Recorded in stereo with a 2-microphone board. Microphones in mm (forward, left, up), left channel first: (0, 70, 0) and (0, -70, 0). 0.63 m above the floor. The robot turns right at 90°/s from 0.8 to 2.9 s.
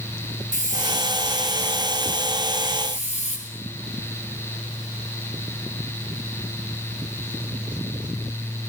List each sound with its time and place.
0.5 s a hiss: 60° right, 7.5 m; by 3.4 s 125° left, 7.5 m